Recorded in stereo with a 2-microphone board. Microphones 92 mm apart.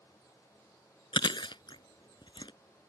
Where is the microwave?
No microwave in this recording.